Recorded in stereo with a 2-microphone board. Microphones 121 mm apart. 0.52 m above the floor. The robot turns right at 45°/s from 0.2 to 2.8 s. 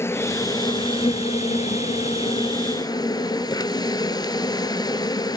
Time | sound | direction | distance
0.0 | an insect | 25° left | 0.9 m